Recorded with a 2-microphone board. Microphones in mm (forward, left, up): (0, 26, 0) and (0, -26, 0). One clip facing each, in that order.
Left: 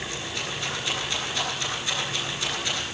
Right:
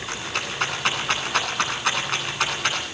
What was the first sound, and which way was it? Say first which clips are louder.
A rattle: right 3 dB; 70° right (ahead or behind).